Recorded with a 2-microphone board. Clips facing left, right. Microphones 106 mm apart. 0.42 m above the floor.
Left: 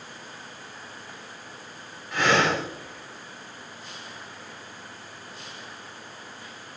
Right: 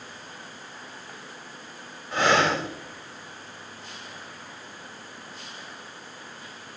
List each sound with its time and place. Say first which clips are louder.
2.1 s breathing: right 1 dB; 30° right (ahead or behind), 1.3 m